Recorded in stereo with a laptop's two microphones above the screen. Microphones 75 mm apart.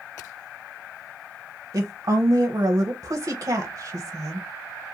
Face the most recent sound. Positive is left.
turn(degrees=-55)  # may be behind; listen again after turning